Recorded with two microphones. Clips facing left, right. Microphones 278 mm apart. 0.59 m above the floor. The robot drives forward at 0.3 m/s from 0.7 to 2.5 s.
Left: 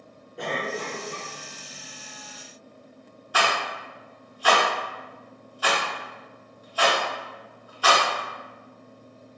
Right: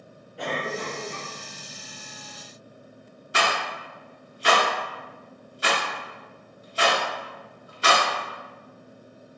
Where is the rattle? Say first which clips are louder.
Even; 25° right (ahead or behind), 0.7 m.